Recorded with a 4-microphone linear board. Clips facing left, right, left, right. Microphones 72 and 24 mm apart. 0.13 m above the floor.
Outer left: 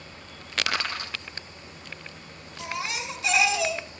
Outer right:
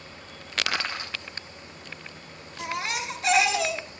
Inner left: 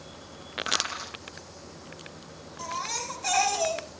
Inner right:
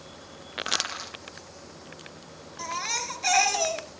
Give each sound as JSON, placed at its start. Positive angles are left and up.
{"t": 0.7, "sound": "crushing", "side_deg": -20, "distance_m": 3.5}
{"t": 2.6, "sound": "a baby crying", "side_deg": -50, "distance_m": 1.6}